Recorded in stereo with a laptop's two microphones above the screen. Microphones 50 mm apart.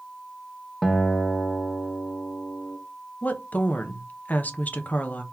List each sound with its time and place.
0.8 s a guitar: 5° left (ahead or behind), 0.5 m
3.2 s a woman speaking: 30° left (ahead or behind), 0.7 m